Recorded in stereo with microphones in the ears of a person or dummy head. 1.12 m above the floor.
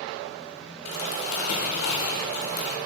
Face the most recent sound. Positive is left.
turn(degrees=80)